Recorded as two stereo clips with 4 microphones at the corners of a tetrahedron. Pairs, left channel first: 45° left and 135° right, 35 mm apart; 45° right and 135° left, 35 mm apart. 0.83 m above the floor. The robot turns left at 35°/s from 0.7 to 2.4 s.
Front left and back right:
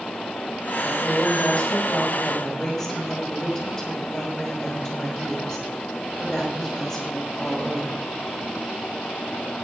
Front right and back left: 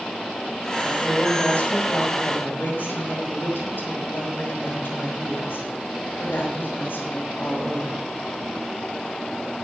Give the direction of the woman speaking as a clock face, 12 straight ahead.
11 o'clock.